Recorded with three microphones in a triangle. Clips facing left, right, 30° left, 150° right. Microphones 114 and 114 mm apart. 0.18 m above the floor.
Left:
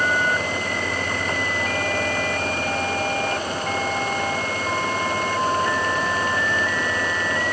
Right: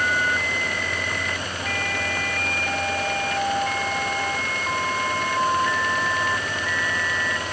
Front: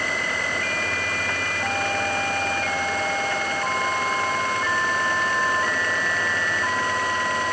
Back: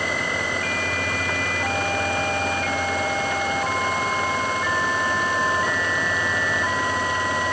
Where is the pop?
I don't hear a pop.